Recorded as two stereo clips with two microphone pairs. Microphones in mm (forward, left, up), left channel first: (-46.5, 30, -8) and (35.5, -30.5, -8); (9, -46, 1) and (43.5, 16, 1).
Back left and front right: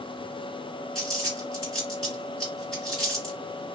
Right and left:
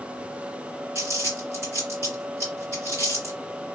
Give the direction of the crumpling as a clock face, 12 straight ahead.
10 o'clock.